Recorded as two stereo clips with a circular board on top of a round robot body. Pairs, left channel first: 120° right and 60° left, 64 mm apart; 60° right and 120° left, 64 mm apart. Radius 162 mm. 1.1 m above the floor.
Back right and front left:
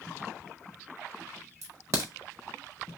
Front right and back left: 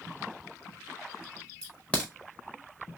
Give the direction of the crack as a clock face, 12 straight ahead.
12 o'clock.